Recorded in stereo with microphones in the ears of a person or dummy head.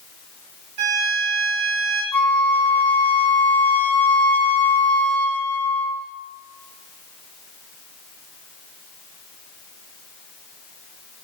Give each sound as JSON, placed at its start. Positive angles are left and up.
{"t": 0.8, "sound": "a violin", "side_deg": -55, "distance_m": 2.0}
{"t": 2.1, "sound": "a flute", "side_deg": 5, "distance_m": 0.5}